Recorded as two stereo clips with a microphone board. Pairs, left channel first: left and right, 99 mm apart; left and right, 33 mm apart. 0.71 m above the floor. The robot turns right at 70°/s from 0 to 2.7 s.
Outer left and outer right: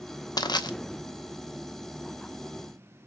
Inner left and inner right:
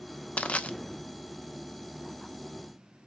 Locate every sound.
0.4 s crushing: 45° left (ahead or behind), 0.6 m